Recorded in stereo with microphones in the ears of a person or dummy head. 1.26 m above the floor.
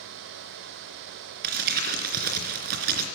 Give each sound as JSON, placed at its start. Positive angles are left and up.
{"t": 1.4, "sound": "crumpling", "side_deg": -45, "distance_m": 3.5}